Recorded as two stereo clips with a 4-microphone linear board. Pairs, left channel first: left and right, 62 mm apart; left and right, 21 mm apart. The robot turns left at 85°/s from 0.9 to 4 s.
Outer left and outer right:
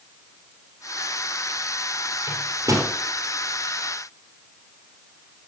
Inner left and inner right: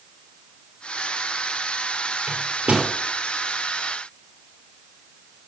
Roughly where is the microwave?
Right.